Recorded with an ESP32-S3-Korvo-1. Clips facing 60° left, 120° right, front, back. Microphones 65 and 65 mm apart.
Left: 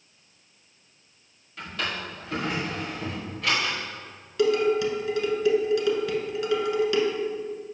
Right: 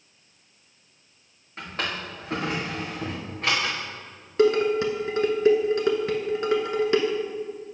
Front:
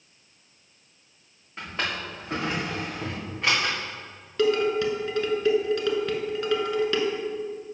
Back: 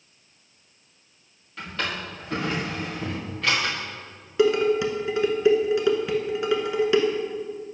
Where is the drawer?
65° right, 3 m.